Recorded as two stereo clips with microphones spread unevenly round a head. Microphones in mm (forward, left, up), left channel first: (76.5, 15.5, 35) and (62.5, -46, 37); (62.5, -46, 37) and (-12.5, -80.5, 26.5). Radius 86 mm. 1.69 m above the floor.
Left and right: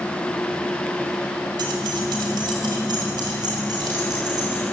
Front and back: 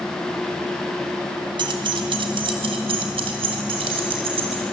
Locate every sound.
1.6 s keys jangling: 135° right, 2.5 m; by 4.6 s 160° right, 5 m